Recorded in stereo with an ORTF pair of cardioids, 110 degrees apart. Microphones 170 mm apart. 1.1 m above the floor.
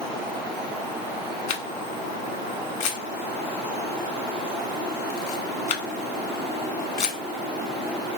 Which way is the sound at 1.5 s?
45° left.